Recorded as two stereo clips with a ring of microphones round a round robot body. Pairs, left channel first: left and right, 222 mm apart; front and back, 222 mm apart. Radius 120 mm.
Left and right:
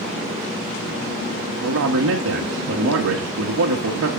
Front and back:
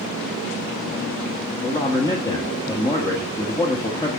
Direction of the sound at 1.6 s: 75° right.